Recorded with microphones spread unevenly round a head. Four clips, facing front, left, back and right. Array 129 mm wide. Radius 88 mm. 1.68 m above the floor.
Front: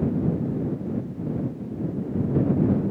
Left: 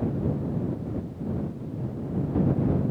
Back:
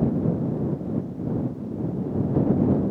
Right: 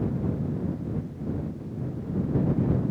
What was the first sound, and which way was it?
Only background noise.